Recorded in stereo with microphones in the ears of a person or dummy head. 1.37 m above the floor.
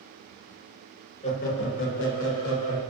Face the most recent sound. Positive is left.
turn(degrees=75)  # may be behind; listen again after turning